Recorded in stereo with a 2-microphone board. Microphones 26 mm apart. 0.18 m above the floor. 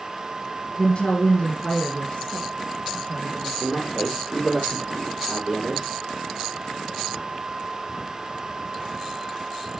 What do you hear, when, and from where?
0.8 s a woman speaking: 40° left (ahead or behind), 1.6 m
3.6 s a man speaking: 5° left (ahead or behind), 5.5 m